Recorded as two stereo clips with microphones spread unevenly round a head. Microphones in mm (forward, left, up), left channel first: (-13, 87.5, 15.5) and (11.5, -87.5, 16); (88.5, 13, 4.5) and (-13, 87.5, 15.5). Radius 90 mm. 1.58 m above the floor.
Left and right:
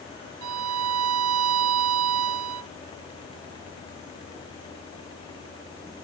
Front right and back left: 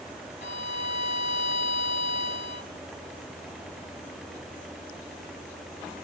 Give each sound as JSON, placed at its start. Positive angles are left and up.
{"t": 0.4, "sound": "a violin", "azimuth_deg": -95}